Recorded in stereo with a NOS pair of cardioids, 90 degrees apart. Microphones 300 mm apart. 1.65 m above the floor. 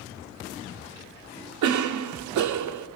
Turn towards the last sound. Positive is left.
turn(degrees=-65)